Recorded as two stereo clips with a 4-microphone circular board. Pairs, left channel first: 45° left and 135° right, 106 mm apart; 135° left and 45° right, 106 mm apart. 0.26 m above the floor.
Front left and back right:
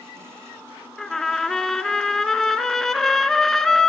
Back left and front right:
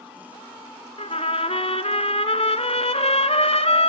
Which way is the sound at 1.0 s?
130° left.